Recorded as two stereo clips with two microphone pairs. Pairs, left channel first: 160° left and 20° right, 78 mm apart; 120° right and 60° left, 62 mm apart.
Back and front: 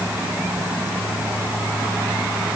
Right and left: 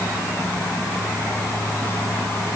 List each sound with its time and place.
Only background noise.